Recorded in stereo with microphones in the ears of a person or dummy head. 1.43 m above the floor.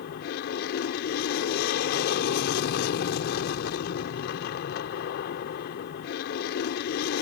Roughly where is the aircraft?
Left.